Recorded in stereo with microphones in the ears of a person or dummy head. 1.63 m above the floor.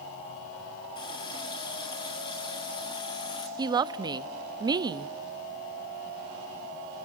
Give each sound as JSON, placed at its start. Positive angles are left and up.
{"t": 0.9, "sound": "a running tap", "side_deg": 20, "distance_m": 2.0}
{"t": 3.6, "sound": "a woman speaking", "side_deg": -25, "distance_m": 0.6}